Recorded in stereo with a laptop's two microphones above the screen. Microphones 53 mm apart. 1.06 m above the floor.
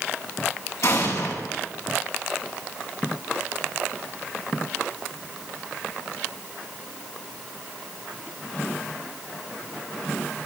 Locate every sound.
0.8 s an explosion: 85° left, 8.5 m